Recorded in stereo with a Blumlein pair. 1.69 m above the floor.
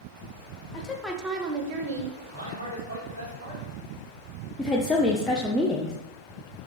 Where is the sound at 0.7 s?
30° left, 0.6 m; by 2.2 s 60° right, 1.2 m.